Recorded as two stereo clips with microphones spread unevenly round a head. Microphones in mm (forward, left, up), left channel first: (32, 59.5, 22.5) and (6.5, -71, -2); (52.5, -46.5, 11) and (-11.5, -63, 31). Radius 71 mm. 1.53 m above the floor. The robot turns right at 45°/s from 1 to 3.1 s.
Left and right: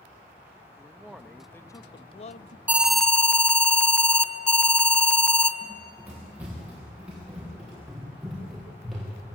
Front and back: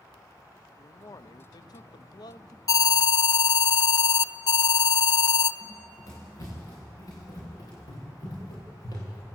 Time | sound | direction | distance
0.8 | a man speaking | 20° right | 0.7 m
2.7 | an alarm | 20° right | 0.8 m
5.6 | running footsteps | 25° right | 8.5 m